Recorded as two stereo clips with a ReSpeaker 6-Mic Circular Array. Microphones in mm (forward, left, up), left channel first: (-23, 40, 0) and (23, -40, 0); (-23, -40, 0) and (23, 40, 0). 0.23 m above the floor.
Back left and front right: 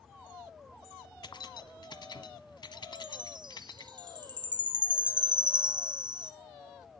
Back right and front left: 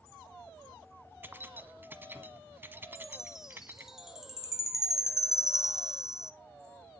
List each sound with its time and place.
1.2 s keys jangling: 120° left, 1.2 m
3.0 s a chime: 25° right, 1.4 m